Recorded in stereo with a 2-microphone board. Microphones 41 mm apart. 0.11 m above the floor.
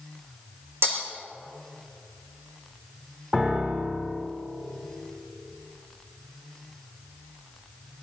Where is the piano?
20° right (ahead or behind), 3 m.